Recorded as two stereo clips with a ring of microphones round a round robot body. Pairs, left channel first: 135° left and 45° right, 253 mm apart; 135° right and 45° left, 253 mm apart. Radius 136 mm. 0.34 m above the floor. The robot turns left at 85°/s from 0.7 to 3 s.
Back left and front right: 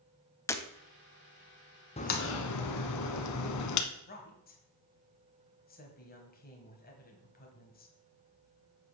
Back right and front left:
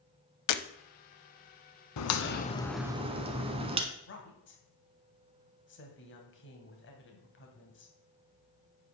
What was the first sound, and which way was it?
Breaking glass, 145° right.